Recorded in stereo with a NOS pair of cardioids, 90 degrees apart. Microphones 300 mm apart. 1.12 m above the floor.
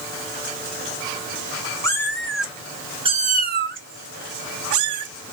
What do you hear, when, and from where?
1.8 s a cat meowing: 10° left, 1.4 m; by 5.1 s 80° right, 1.3 m